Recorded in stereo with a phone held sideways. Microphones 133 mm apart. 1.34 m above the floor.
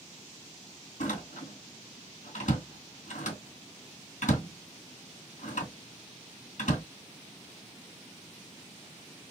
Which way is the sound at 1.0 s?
70° left (ahead or behind).